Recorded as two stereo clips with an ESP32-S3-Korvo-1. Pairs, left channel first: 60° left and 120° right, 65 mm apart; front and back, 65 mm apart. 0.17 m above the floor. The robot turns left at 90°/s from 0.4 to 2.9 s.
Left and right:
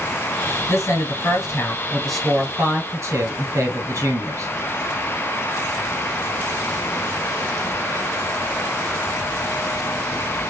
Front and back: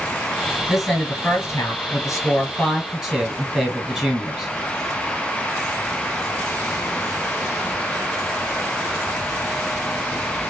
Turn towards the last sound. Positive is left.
turn(degrees=-90)